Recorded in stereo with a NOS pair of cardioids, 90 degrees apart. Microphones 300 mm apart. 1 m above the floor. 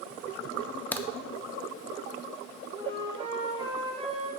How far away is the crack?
About 0.7 m.